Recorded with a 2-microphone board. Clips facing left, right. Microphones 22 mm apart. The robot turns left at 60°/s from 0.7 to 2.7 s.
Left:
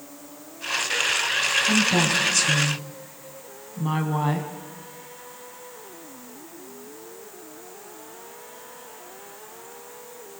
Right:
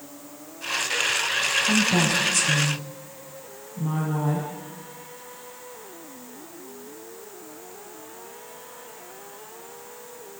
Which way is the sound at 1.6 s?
15° right (ahead or behind).